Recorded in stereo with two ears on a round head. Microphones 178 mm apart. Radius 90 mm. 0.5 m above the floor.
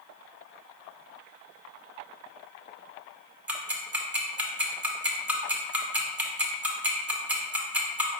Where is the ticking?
10° right (ahead or behind), 0.7 m.